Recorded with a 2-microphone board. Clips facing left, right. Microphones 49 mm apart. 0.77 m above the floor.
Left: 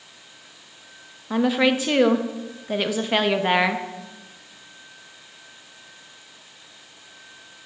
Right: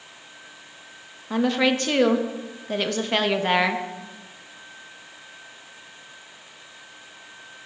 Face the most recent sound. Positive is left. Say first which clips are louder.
# left 1 dB
turn(degrees=10)  # may be behind; listen again after turning